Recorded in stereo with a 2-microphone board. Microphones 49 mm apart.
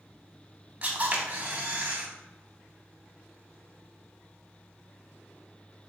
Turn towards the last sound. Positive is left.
turn(degrees=-35)  # may be behind; listen again after turning